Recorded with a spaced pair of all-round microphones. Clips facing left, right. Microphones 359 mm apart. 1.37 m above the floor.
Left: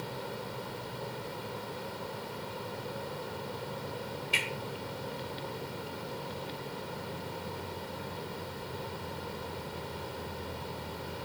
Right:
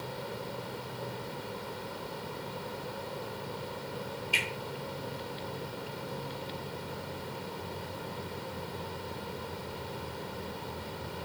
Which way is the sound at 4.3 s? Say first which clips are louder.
Even; 30° left (ahead or behind).